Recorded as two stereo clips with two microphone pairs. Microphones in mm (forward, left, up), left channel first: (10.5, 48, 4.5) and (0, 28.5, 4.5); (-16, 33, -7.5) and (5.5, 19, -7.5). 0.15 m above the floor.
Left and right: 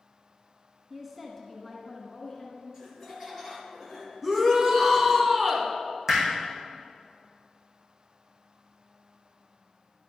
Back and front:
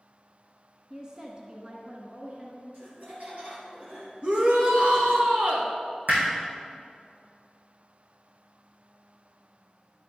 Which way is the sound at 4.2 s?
40° right.